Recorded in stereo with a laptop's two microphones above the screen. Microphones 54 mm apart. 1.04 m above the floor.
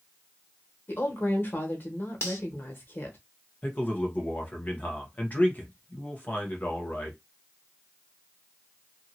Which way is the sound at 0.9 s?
45° left (ahead or behind).